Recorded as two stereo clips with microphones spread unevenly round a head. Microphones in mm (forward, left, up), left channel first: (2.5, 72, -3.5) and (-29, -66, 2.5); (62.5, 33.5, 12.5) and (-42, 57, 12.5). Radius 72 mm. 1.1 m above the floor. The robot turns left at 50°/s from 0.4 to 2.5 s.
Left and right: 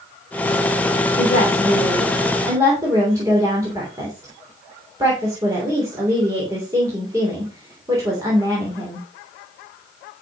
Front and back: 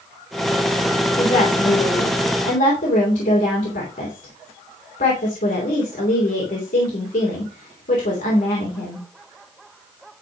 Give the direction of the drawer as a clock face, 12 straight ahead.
No drawer in this recording.